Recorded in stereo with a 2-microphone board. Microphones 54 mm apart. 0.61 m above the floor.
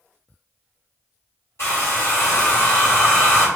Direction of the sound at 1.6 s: 55° left (ahead or behind).